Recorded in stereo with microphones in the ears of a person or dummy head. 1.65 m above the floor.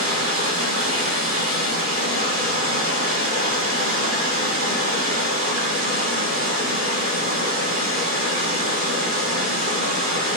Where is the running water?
60° right (ahead or behind), 3.5 m.